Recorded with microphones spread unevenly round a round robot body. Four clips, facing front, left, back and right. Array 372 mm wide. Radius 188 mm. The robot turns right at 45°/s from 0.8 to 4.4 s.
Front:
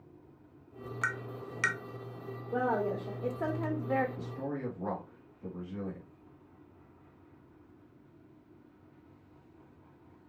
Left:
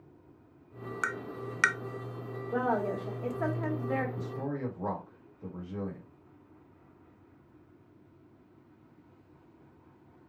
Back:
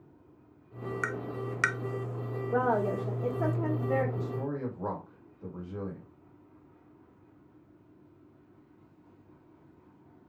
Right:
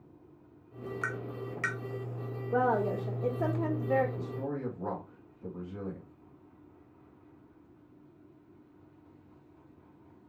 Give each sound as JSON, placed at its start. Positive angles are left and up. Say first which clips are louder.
{"t": 1.0, "sound": "tapping", "louder": "left 3 dB, even", "azimuth_deg": 90, "distance_m": 0.5}
{"t": 2.5, "sound": "a woman speaking", "louder": "right 2 dB, back 3 dB", "azimuth_deg": -155, "distance_m": 1.1}
{"t": 4.2, "sound": "a man speaking", "louder": "left 1 dB, back 3 dB", "azimuth_deg": 130, "distance_m": 1.8}